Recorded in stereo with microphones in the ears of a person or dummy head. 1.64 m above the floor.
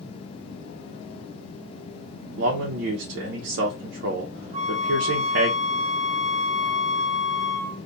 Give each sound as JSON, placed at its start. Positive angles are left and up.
{"t": 2.4, "sound": "a man speaking", "side_deg": -55, "distance_m": 0.6}
{"t": 4.5, "sound": "a flute", "side_deg": -40, "distance_m": 0.8}